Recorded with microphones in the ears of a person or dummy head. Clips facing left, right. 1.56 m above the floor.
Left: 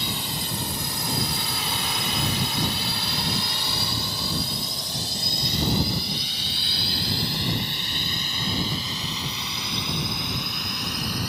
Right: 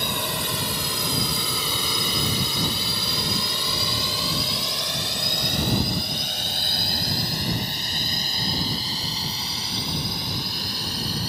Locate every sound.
0.0 s a drone: 45° right (ahead or behind); by 11.3 s 20° right (ahead or behind)